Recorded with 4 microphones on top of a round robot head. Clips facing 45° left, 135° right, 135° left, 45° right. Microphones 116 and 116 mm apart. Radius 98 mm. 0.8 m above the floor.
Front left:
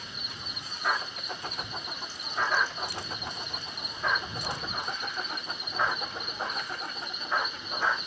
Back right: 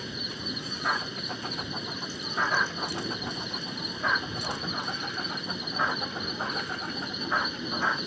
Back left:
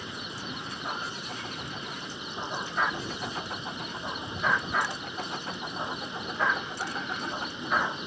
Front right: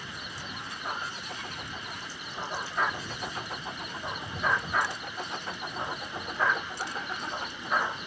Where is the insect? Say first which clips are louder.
Back right 7 dB, back left 3 dB; 155° right.